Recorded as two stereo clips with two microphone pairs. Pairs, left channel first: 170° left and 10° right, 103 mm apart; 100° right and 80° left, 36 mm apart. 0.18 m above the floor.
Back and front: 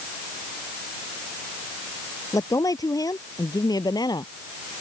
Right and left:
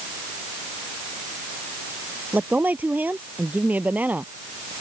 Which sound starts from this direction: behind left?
A woman speaking, at 2.3 s.